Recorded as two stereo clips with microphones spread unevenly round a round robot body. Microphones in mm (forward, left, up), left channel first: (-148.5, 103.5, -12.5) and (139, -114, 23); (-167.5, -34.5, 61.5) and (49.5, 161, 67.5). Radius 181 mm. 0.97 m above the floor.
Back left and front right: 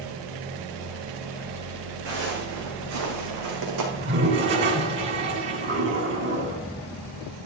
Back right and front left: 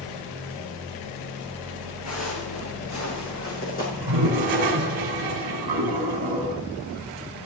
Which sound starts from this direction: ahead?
A toilet flushing, at 3.9 s.